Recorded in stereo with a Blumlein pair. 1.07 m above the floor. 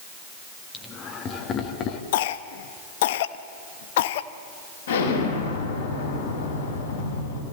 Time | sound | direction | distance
0.7 | laughter | 20° left | 1.7 m
2.1 | a cough | 55° left | 1.1 m
4.9 | an explosion | 65° left | 5.5 m